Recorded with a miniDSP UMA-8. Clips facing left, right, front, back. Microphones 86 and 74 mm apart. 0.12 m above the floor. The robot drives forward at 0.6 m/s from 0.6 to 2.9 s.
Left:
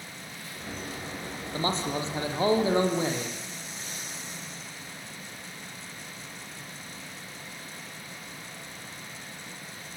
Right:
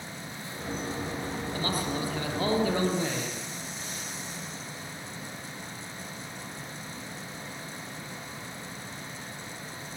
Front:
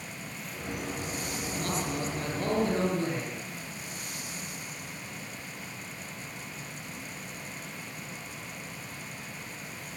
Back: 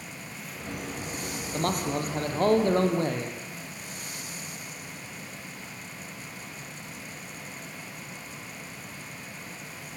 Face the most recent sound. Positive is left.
turn(degrees=155)